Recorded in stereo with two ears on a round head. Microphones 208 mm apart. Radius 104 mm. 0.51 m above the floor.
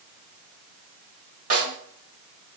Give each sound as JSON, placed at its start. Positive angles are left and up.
{"t": 1.5, "sound": "a snare drum", "side_deg": -35, "distance_m": 1.1}